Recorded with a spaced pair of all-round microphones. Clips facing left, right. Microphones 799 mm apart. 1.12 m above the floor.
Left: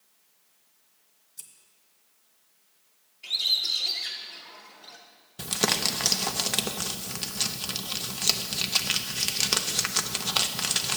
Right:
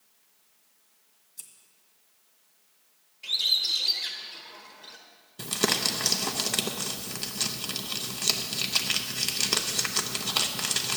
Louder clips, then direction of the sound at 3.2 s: Even; 15° right (ahead or behind).